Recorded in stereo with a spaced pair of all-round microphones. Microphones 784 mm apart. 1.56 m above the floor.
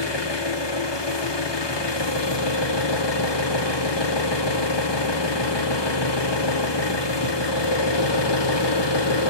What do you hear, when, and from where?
0.0 s an engine running: 35° left (ahead or behind), 0.7 m